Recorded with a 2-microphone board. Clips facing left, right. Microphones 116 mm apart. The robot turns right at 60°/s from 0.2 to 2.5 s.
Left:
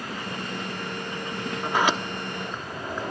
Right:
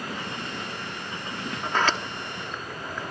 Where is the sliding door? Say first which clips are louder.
Left 2 dB; 5° left (ahead or behind), 0.9 m; by 3.1 s 25° left (ahead or behind), 0.9 m.